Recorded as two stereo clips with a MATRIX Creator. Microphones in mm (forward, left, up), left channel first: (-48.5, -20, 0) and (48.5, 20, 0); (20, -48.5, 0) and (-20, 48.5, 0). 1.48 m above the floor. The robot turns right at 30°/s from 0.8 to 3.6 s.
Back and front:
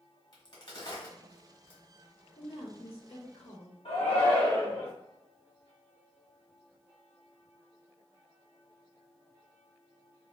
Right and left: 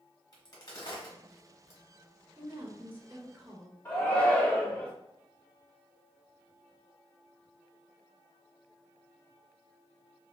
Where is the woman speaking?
170° left, 0.9 m; by 3.8 s 155° right, 0.9 m.